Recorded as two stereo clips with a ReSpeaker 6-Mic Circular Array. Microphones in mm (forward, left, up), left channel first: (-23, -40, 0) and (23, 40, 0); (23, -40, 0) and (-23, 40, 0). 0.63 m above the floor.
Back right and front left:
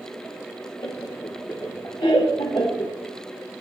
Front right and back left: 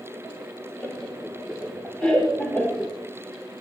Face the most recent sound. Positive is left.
turn(degrees=-135)